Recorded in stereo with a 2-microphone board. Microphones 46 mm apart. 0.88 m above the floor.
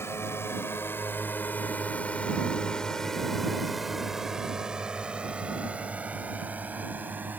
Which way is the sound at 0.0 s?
60° left (ahead or behind).